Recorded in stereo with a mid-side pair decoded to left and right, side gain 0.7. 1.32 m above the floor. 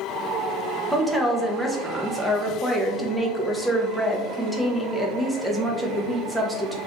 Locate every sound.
0.9 s a woman speaking: straight ahead, 0.9 m